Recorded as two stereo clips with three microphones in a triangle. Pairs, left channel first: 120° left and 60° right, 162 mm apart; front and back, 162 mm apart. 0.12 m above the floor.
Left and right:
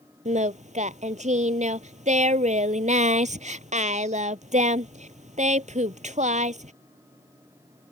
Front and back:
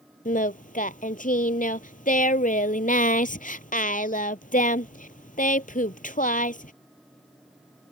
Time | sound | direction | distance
0.2 | singing | 25° right | ?